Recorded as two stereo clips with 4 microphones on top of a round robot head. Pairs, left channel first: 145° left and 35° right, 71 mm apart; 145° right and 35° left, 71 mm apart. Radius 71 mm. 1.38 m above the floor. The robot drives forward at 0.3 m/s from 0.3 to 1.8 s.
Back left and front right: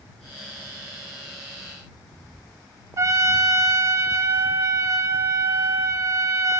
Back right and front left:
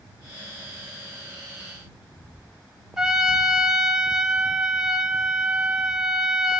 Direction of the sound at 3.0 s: 40° right.